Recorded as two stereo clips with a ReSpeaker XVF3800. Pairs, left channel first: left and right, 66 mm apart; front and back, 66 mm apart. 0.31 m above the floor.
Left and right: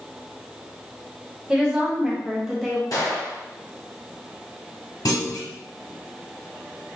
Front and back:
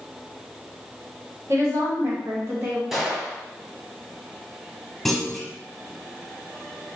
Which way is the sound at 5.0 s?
80° left.